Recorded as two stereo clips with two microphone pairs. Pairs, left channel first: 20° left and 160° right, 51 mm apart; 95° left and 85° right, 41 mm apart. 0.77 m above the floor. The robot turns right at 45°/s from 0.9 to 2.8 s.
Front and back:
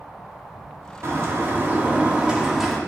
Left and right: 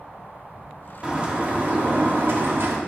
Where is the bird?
145° right, 2 m; by 2.8 s 65° right, 2 m.